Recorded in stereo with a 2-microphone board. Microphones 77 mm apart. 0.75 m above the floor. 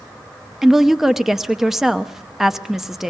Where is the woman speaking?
5° right (ahead or behind), 0.7 m.